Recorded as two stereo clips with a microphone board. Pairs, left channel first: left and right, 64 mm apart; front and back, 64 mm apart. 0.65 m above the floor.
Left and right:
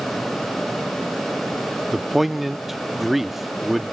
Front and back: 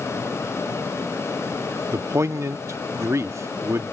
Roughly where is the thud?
No thud in this recording.